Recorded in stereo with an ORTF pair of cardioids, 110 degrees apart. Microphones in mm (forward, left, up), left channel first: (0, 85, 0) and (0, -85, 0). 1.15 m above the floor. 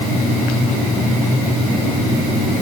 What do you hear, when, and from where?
Only background noise.